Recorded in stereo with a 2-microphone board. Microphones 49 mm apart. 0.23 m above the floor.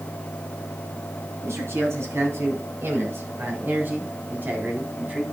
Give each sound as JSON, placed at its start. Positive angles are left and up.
{"t": 1.4, "sound": "a man speaking", "side_deg": -65, "distance_m": 3.5}